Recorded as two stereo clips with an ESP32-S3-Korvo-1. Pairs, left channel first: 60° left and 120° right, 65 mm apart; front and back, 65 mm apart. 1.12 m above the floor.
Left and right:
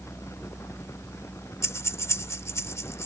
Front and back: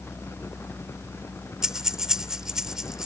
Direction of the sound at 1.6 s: 100° left.